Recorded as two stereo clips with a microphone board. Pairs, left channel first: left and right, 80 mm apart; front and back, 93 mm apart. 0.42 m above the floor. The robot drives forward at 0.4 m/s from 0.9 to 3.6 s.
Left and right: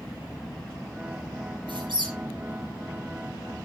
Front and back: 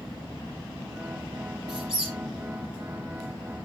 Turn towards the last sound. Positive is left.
turn(degrees=-105)